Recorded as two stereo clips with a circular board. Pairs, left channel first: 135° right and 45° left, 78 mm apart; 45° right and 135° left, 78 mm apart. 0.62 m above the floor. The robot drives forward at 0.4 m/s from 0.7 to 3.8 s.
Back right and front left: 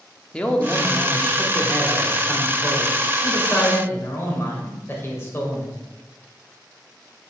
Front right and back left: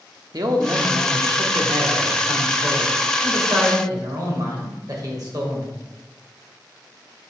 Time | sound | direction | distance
0.3 | a man speaking | 150° left | 0.9 m